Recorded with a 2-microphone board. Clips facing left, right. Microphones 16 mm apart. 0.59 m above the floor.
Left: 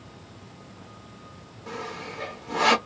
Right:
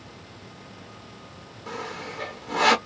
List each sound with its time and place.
1.7 s sawing: 20° right (ahead or behind), 1.0 m